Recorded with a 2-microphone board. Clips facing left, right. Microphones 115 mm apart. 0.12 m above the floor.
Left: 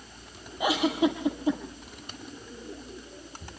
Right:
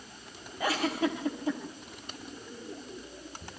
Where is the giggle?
15° left (ahead or behind), 3.5 m.